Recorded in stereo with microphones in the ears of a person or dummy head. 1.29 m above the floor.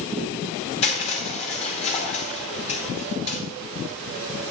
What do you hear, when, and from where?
0.8 s crushing: 30° left (ahead or behind), 2.5 m